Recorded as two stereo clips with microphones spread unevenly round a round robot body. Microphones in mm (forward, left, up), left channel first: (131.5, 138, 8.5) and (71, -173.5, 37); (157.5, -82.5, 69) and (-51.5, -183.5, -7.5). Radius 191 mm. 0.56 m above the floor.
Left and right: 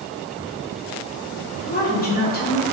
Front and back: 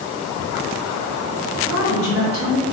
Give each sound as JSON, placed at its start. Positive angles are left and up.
{"t": 1.6, "sound": "a woman speaking", "azimuth_deg": 40, "distance_m": 1.0}